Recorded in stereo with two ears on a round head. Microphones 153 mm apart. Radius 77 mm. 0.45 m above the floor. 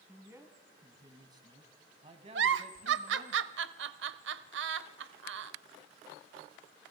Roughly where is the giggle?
Right.